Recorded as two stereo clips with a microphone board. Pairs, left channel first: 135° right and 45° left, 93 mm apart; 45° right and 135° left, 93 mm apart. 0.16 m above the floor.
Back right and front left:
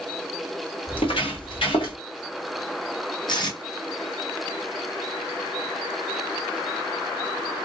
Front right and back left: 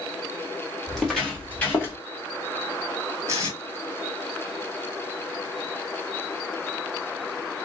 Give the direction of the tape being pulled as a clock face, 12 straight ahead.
6 o'clock.